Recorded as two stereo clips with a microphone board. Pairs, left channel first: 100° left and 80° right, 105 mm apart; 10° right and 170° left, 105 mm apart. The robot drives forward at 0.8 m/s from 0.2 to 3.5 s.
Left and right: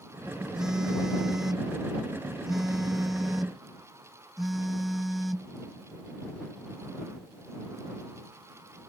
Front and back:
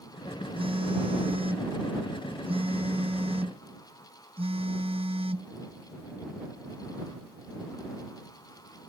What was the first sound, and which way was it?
A phone buzzing, 165° right.